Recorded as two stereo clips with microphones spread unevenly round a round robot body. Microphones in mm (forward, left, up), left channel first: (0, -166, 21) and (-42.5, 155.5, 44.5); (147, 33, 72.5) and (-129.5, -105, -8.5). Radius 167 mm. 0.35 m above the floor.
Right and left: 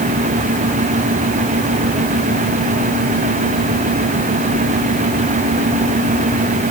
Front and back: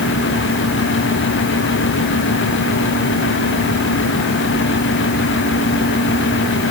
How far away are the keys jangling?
No keys jangling in this recording.